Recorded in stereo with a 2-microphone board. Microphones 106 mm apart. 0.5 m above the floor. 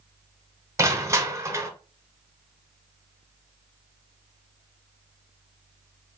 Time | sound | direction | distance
0.8 | crushing | 25° right (ahead or behind) | 1.0 m